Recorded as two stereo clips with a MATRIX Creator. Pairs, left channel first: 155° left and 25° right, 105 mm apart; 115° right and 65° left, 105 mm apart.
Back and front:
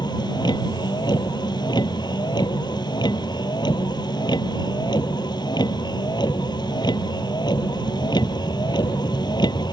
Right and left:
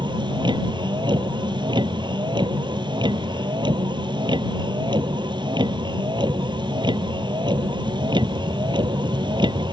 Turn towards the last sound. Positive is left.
turn(degrees=110)